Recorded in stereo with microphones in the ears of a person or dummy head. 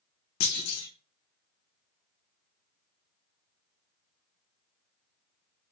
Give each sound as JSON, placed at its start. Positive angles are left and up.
{"t": 0.4, "sound": "a clunk", "side_deg": 80, "distance_m": 1.0}